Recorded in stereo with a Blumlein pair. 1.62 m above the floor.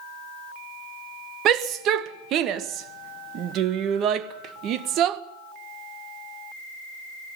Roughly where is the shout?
Ahead right.